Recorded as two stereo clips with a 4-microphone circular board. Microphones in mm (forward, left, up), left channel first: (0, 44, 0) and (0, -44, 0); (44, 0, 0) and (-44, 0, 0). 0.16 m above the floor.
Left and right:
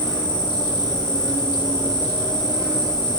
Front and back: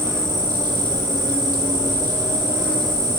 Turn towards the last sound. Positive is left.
turn(degrees=125)